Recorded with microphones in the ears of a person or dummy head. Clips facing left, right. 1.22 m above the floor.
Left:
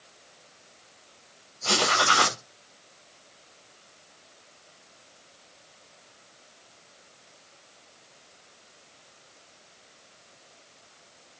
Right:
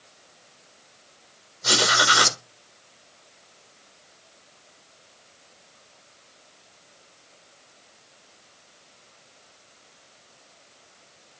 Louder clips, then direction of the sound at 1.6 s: Right 1 dB; 20° right (ahead or behind).